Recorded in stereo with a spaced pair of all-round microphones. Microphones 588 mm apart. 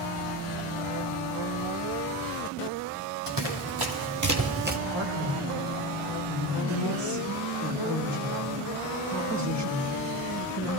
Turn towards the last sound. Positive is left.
turn(degrees=-45)  # may be behind; listen again after turning